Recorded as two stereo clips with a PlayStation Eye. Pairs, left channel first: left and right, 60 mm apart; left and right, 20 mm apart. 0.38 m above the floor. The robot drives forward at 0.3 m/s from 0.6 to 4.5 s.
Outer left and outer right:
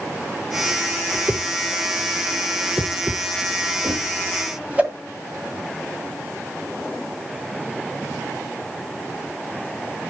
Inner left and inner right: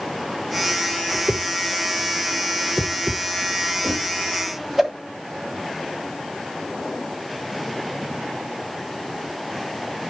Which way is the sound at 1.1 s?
35° right (ahead or behind).